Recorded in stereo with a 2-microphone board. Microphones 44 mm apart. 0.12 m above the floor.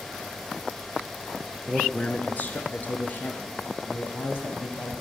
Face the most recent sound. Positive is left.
turn(degrees=65)  # may be behind; listen again after turning